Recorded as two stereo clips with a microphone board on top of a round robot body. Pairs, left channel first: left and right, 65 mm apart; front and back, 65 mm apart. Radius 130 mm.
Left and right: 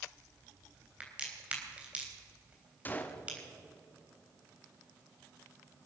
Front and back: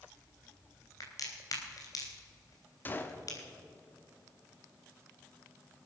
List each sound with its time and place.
1.0 s a crack: 20° right, 4 m
2.9 s a gunshot: 45° left, 1.7 m